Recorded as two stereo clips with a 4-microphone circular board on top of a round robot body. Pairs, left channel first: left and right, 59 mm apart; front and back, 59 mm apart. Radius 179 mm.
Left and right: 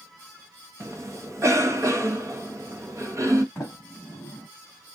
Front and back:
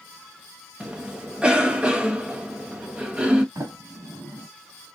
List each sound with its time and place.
0.8 s a cough: 110° right, 1.3 m
3.5 s a sliding door: 150° left, 0.9 m